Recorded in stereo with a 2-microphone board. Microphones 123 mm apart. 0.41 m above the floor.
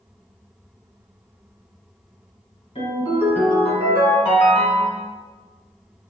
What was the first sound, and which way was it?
A ringtone, 60° left (ahead or behind).